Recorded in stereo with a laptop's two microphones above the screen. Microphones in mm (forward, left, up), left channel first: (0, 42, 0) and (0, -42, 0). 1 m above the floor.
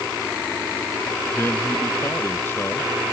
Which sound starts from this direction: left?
A man speaking, at 1.3 s.